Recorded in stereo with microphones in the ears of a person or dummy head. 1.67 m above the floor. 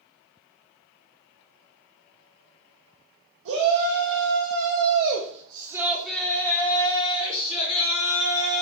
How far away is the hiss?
No hiss in this recording.